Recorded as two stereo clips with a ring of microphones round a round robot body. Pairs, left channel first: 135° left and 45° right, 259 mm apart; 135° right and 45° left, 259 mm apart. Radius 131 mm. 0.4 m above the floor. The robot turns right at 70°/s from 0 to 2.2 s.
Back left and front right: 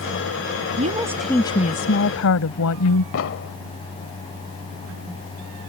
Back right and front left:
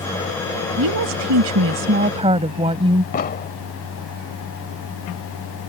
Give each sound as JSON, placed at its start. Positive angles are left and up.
{"t": 0.8, "sound": "a woman speaking", "azimuth_deg": 10}
{"t": 3.1, "sound": "an explosion", "azimuth_deg": 170}